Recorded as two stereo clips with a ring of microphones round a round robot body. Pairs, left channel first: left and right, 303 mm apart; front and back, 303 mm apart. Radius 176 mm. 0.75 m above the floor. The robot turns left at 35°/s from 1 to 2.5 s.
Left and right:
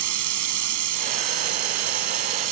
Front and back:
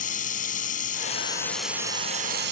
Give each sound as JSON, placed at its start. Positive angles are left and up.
{"t": 0.0, "sound": "running water", "azimuth_deg": -70}